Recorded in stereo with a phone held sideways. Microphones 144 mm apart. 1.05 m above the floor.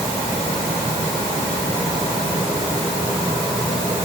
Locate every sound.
Only background noise.